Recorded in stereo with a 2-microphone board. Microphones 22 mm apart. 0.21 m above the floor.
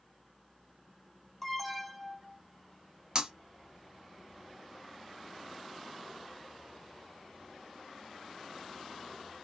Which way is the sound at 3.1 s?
30° right (ahead or behind).